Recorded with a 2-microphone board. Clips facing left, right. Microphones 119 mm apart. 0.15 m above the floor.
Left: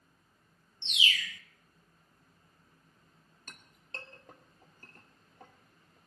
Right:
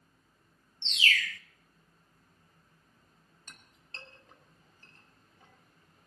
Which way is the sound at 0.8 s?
15° left (ahead or behind).